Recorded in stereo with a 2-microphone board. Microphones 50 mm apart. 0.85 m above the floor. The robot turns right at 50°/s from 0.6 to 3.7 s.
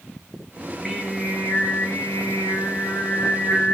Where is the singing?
Straight ahead, 5 m; by 3.7 s 150° left, 5 m.